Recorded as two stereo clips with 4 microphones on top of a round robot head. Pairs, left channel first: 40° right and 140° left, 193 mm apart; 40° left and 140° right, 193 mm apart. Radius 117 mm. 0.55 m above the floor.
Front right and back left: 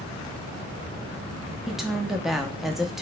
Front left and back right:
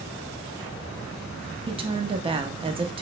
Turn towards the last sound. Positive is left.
turn(degrees=-130)